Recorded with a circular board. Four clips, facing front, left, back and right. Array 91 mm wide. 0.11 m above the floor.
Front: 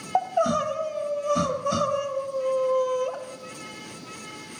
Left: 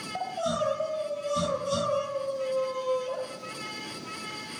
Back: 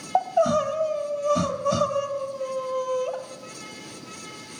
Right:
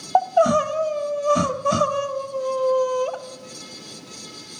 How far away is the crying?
About 1.3 m.